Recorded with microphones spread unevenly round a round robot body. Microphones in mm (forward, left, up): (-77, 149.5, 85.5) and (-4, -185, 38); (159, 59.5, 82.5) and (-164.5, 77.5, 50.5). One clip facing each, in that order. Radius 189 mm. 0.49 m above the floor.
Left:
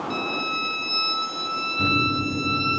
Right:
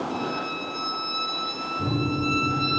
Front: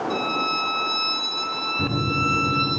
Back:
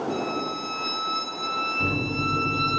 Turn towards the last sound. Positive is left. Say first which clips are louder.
# even, front 3 dB
turn(degrees=35)